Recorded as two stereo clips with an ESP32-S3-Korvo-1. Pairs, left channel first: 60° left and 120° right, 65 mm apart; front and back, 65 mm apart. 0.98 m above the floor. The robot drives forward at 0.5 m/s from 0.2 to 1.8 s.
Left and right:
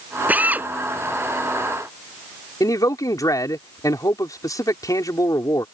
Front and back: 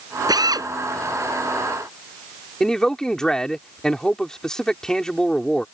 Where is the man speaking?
80° left.